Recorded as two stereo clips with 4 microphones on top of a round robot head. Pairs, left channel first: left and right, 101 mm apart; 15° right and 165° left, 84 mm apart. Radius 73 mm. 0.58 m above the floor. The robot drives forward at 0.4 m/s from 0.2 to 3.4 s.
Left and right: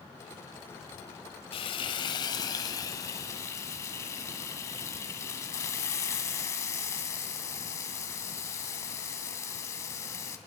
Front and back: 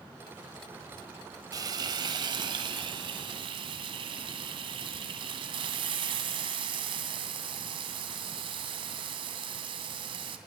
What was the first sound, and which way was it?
Frying, 125° left.